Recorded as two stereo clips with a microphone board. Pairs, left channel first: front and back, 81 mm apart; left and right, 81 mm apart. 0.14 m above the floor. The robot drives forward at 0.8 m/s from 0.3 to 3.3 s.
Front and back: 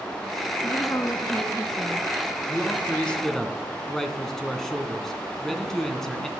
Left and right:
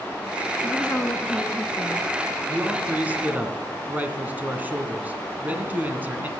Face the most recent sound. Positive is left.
turn(degrees=-75)